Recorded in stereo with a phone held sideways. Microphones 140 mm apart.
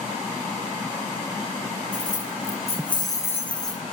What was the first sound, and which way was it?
Keys jangling, 70° left (ahead or behind).